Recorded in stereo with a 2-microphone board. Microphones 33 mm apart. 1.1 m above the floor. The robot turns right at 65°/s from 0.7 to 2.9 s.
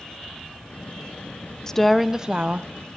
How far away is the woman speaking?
About 0.8 m.